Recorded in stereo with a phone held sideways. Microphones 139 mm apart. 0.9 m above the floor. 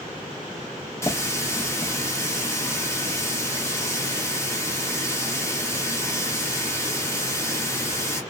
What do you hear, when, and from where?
1.0 s a running tap: 20° left (ahead or behind), 1.2 m